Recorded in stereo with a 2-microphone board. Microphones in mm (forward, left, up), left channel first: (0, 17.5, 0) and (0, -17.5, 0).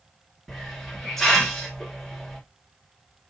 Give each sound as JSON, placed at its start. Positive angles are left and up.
{"t": 0.5, "sound": "a hiss", "side_deg": 10, "distance_m": 1.3}